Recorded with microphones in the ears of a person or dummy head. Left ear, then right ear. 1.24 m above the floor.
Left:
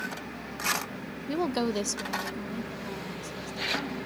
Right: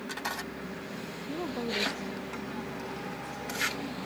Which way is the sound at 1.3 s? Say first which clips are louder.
Left 5 dB; 65° left (ahead or behind).